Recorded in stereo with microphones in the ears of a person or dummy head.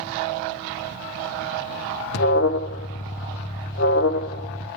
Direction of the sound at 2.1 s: 65° left (ahead or behind).